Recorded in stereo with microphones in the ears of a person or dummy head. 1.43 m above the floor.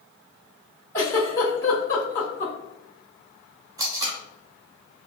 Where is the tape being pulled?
25° right (ahead or behind), 0.8 m.